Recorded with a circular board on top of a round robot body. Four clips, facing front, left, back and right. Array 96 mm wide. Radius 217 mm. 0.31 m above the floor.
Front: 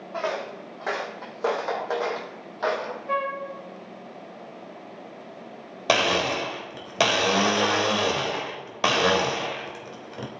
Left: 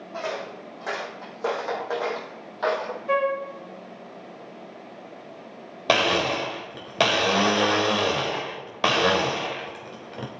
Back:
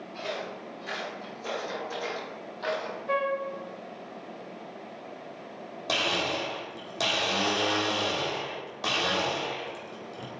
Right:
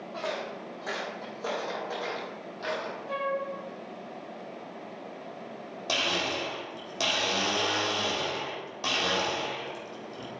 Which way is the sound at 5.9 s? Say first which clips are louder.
Left 9 dB, front 7 dB; 50° left.